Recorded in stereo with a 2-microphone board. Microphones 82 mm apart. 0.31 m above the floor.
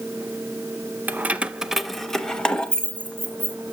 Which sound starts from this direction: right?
Keys jangling, at 1.1 s.